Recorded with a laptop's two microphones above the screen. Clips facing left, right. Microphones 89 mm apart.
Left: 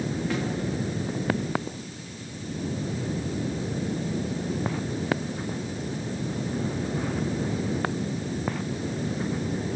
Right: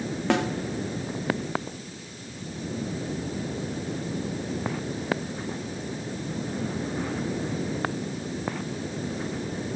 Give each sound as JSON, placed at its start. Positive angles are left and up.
{"t": 0.3, "sound": "a snare drum", "side_deg": -80, "distance_m": 0.9}